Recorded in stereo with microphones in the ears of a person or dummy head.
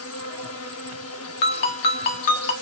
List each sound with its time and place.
0.0 s an insect: 75° left (ahead or behind), 1.5 m
1.4 s a ringtone: 40° left (ahead or behind), 1.2 m